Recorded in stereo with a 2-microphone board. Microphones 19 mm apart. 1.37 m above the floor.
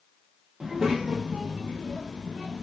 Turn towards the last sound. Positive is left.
turn(degrees=-65)  # may be behind; listen again after turning